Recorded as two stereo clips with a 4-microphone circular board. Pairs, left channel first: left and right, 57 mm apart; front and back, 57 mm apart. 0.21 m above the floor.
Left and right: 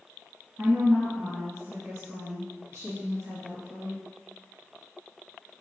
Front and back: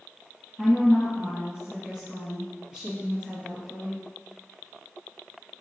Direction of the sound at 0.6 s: 130° right.